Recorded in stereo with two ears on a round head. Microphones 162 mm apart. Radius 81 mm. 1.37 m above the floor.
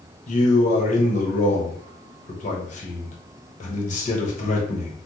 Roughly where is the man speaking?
Left.